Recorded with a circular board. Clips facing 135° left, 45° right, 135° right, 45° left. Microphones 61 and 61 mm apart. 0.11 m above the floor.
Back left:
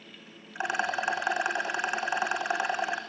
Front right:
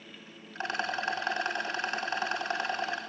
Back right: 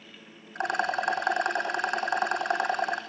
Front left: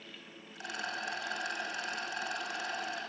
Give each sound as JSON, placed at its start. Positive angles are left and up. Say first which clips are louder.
{"t": 0.6, "sound": "a rattle", "louder": "back left 3 dB, back right 12 dB", "azimuth_deg": -150, "distance_m": 2.0}